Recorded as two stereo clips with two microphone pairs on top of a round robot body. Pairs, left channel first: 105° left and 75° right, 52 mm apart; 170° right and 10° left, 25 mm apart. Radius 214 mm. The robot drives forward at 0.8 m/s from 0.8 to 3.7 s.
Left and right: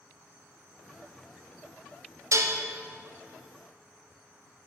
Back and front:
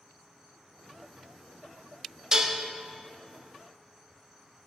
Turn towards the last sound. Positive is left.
turn(degrees=-145)